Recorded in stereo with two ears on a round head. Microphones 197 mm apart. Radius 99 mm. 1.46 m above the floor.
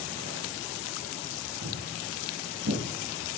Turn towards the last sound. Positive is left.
turn(degrees=-75)  # may be behind; listen again after turning